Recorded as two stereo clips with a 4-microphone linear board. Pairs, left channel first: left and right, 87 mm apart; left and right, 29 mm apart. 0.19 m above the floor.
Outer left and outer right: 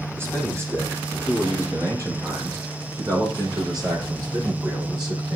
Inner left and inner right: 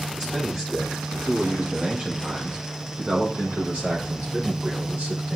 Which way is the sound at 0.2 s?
30° right (ahead or behind).